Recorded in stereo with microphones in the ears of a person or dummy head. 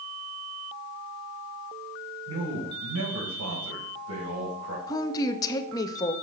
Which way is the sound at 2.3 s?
75° right (ahead or behind).